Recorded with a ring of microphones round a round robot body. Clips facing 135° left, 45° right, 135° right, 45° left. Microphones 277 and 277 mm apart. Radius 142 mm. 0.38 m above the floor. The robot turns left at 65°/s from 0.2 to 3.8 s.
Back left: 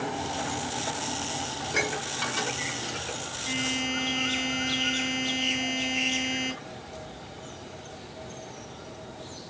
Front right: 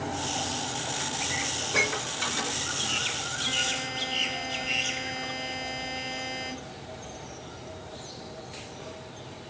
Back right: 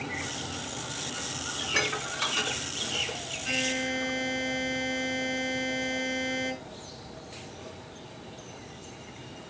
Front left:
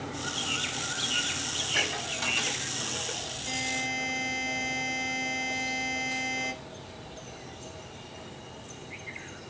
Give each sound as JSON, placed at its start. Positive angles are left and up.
{"t": 1.6, "sound": "dishes clattering", "azimuth_deg": -105, "distance_m": 2.5}
{"t": 3.5, "sound": "a buzzer", "azimuth_deg": -165, "distance_m": 5.0}